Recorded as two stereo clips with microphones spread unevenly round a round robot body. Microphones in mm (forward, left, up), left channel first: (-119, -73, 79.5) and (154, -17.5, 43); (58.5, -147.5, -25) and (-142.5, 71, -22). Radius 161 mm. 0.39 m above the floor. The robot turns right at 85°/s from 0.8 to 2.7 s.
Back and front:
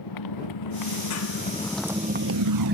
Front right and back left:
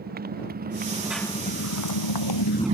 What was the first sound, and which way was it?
A motorcycle, 170° right.